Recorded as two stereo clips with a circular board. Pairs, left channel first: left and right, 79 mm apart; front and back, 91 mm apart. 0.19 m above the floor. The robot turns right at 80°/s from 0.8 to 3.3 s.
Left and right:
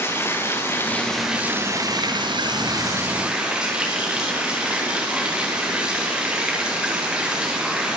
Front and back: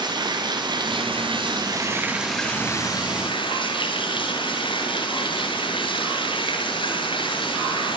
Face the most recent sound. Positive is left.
turn(degrees=-10)